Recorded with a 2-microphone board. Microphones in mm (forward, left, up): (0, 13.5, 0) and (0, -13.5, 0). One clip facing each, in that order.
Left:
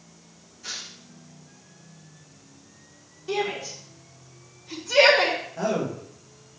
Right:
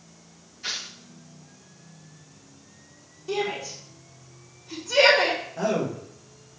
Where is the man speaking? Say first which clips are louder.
Right 1 dB; centre (ahead or behind), 2.5 m.